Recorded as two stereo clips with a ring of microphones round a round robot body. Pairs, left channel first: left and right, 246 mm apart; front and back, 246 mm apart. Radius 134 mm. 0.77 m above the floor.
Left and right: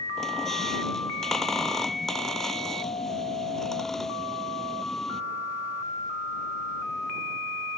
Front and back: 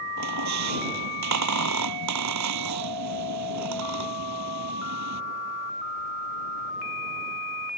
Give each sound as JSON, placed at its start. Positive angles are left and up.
{"t": 0.2, "sound": "a squeak", "azimuth_deg": 180}